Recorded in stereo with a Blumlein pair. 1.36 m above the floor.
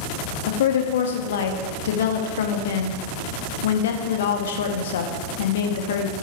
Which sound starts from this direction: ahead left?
A woman speaking, at 0.5 s.